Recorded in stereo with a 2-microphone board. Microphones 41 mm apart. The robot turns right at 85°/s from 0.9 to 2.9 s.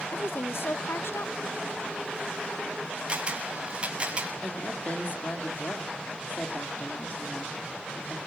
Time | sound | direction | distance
0.1 | a woman speaking | 70° left | 0.6 m
3.1 | a camera shutter | 25° right (ahead or behind) | 5.5 m
4.4 | a woman speaking | 40° left (ahead or behind) | 3.5 m